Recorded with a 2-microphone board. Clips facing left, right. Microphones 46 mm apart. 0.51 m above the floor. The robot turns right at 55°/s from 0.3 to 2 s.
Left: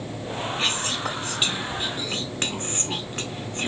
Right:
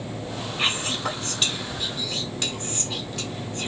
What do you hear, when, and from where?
0.6 s whispering: 25° right, 1.3 m; by 3.7 s 50° left, 1.3 m